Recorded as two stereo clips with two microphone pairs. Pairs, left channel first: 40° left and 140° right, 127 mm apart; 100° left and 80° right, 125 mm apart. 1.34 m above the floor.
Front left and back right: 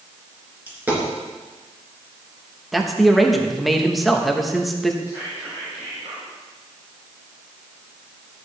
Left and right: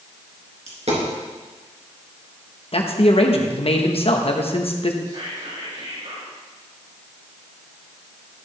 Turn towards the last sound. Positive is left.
turn(degrees=-80)